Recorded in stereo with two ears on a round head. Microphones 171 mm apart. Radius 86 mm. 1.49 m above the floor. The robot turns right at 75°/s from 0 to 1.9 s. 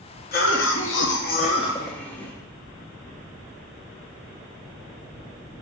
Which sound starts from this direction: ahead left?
A cough, at 0.3 s.